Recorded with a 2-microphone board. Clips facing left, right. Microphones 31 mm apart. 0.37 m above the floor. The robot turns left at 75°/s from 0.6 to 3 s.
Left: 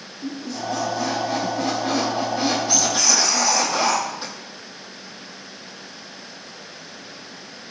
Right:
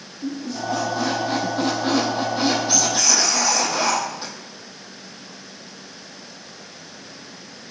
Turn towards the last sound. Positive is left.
turn(degrees=175)